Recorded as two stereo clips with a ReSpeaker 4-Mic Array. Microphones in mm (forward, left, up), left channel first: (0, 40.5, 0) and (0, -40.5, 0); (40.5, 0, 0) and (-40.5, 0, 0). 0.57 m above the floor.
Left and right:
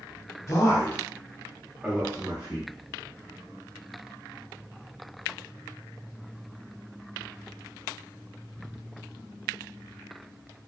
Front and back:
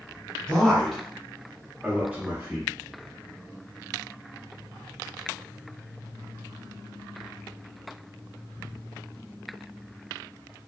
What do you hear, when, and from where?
0.5 s a man speaking: 75° left, 0.9 m; by 2.7 s 120° right, 1.0 m